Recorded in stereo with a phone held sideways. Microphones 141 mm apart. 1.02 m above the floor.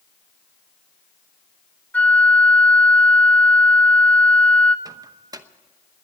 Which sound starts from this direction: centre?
A flute, at 1.9 s.